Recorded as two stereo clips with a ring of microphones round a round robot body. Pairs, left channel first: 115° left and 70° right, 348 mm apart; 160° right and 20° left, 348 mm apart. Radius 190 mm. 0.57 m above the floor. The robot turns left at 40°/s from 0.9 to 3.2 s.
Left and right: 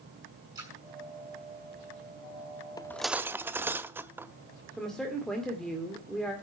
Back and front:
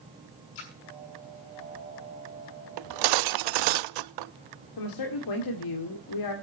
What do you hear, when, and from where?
0.6 s a splash: 150° right, 5.5 m
2.8 s cutlery clinking: 35° left, 0.6 m; by 4.3 s 15° left, 0.6 m
4.8 s a woman speaking: 160° right, 1.8 m